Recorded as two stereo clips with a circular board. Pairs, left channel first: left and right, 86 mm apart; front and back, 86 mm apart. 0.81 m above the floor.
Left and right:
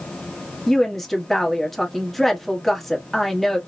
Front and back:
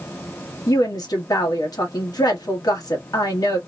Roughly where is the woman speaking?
Ahead.